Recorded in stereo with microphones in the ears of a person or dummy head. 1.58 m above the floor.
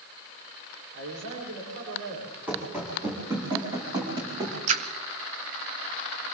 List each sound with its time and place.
0.9 s a man speaking: 70° right (ahead or behind), 6 m
2.5 s running footsteps: 5° right (ahead or behind), 6 m; by 4.6 s 25° right (ahead or behind), 7 m
4.7 s a splash: 35° right (ahead or behind), 1.0 m